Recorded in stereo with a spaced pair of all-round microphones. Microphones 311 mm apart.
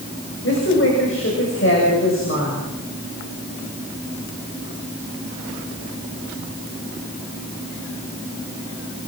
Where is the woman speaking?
45° left (ahead or behind), 6.5 m.